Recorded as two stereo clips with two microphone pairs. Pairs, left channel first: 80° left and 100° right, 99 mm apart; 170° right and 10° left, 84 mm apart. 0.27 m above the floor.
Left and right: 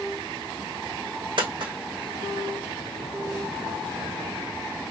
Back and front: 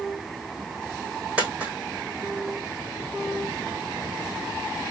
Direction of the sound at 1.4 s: 65° right.